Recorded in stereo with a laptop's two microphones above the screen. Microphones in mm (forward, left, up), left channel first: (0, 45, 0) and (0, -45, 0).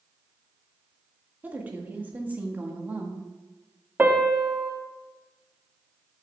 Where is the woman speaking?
20° right (ahead or behind), 1.5 m.